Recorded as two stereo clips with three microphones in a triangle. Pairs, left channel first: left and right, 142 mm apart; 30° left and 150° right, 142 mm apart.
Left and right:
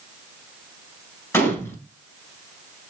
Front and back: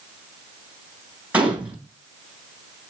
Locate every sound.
1.3 s a gunshot: 140° left, 1.5 m